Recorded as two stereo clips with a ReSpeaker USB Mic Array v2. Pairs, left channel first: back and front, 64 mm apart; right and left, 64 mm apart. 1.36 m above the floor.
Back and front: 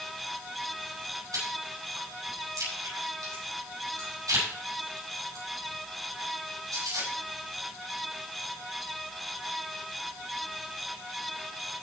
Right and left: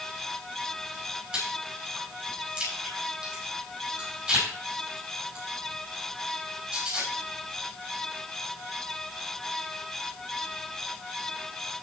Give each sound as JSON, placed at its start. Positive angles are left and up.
{"t": 1.3, "sound": "chewing", "azimuth_deg": 15, "distance_m": 7.0}